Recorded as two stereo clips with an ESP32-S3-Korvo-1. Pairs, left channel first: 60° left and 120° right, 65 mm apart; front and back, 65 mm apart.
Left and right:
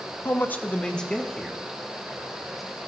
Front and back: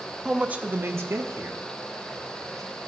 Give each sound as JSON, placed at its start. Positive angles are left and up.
{"t": 0.2, "sound": "a man speaking", "azimuth_deg": 100, "distance_m": 0.7}